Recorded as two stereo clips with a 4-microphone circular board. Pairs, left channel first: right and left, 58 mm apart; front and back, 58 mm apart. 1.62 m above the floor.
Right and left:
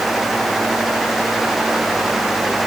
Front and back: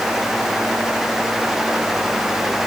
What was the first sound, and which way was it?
Only background noise.